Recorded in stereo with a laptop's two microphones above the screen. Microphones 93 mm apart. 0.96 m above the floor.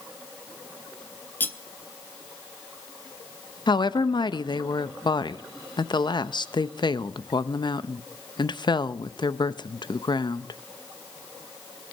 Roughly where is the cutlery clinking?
Centre.